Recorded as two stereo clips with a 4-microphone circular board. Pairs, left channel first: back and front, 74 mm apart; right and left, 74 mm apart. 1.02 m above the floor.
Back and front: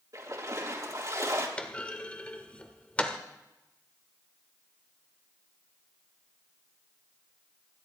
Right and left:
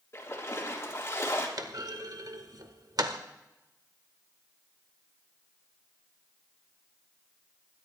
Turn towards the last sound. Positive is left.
turn(degrees=105)